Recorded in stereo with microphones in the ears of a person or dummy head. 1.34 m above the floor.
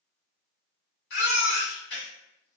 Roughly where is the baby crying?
Left.